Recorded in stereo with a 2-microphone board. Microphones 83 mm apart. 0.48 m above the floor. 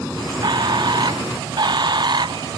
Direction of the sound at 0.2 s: 60° right (ahead or behind).